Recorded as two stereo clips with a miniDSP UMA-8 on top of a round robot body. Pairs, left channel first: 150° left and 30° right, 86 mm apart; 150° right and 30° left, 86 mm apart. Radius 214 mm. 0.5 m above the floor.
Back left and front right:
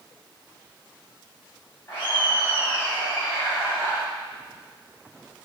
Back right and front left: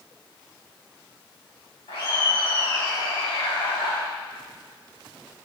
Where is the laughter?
150° right, 6 m; by 4.0 s 130° right, 5.5 m.